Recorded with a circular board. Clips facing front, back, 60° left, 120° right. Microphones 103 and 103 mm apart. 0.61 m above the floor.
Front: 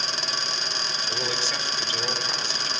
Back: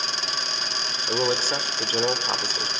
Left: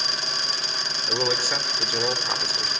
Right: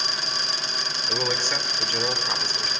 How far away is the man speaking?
About 2 m.